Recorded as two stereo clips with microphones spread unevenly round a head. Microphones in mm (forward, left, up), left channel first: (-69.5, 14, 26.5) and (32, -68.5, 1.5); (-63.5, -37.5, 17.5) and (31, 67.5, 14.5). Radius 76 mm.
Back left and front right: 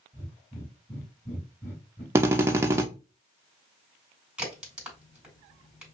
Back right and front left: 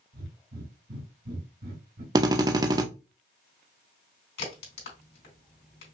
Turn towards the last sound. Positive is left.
turn(degrees=-125)